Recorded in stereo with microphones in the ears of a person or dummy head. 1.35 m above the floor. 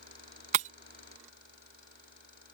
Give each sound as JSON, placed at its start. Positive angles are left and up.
{"t": 0.5, "sound": "breaking glass", "side_deg": -35}